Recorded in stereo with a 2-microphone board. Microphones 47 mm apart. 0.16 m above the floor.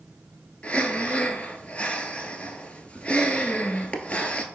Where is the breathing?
25° left (ahead or behind), 0.9 m.